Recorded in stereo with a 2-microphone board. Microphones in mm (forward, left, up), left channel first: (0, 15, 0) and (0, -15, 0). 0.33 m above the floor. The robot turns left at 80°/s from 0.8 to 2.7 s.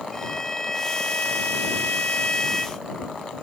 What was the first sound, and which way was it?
A violin, 160° left.